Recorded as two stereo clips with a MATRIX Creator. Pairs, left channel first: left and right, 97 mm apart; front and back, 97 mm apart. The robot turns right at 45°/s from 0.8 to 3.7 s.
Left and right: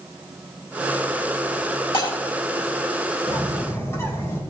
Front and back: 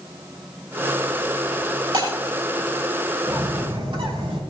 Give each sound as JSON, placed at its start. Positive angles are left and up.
{"t": 1.9, "sound": "breaking glass", "azimuth_deg": 125, "distance_m": 5.5}
{"t": 3.3, "sound": "a bird", "azimuth_deg": 135, "distance_m": 3.0}